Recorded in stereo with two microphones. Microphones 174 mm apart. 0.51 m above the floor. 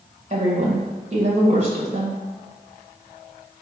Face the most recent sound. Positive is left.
turn(degrees=-45)  # may be behind; listen again after turning